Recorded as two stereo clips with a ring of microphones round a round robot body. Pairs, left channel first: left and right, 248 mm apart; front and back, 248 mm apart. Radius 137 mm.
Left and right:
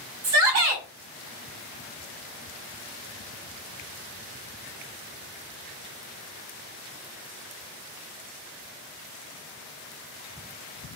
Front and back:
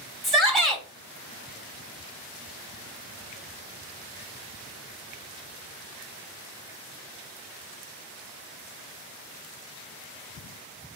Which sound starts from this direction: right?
A shout, at 0.2 s.